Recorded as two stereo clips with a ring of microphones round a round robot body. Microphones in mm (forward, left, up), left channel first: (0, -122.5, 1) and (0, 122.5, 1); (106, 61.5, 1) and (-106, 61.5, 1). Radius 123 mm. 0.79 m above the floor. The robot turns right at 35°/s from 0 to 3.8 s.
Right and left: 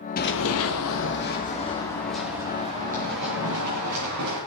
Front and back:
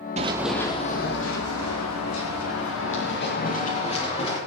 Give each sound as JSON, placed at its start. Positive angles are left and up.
{"t": 0.2, "sound": "running footsteps", "azimuth_deg": -130, "distance_m": 1.0}